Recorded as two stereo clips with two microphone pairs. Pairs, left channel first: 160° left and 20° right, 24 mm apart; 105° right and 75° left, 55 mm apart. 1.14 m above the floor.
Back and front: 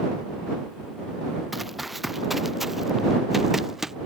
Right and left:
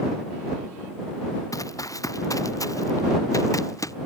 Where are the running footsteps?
105° right; by 3.9 s 95° right.